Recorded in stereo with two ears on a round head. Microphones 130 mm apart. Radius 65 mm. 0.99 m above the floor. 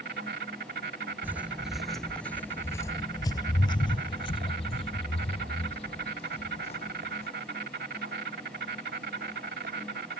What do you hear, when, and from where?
0.0 s an insect: 75° right (ahead or behind)
1.2 s footsteps: 15° right (ahead or behind); by 7.3 s 45° left (ahead or behind)